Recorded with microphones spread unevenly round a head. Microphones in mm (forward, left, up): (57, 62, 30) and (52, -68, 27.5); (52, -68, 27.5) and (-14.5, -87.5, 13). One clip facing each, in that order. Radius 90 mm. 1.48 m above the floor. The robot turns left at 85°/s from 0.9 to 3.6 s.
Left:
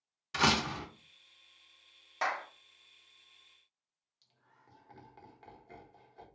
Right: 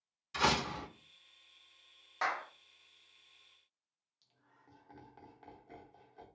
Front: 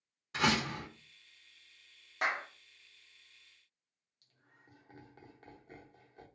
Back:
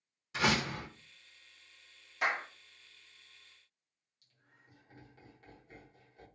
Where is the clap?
15° left, 1.0 m; by 2.5 s 5° right, 1.0 m.